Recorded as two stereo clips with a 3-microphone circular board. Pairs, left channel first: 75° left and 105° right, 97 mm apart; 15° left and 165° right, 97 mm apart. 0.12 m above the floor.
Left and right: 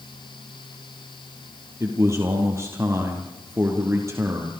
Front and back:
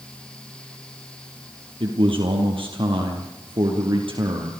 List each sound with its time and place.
1.8 s a man speaking: 160° right, 4 m